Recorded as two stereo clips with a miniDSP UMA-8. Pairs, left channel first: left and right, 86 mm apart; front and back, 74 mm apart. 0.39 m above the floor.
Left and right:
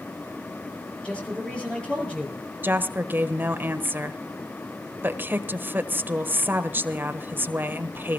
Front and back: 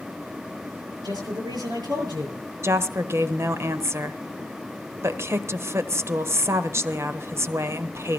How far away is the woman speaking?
About 1.2 m.